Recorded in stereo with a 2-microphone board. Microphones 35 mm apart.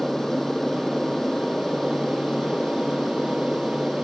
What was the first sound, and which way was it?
An aircraft, 10° left (ahead or behind).